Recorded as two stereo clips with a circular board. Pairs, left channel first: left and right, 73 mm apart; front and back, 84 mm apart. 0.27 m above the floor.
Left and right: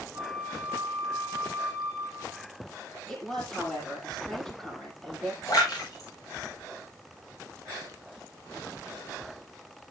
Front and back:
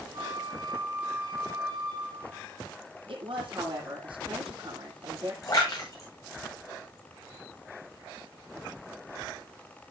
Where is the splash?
50° left, 6 m.